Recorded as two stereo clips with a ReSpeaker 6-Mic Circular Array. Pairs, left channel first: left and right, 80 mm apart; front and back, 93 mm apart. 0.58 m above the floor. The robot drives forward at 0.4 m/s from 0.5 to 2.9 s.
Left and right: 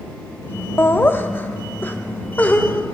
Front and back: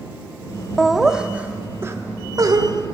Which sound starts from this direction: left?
Laughter, at 0.8 s.